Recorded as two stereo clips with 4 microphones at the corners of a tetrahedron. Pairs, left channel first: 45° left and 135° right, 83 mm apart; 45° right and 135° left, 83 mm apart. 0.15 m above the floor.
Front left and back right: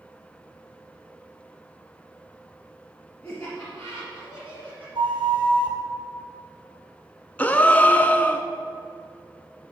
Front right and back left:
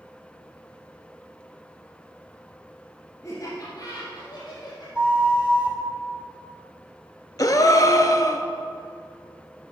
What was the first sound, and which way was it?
Laughter, 20° right.